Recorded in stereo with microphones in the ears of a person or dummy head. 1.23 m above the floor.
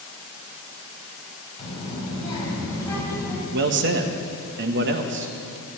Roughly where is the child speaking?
Left.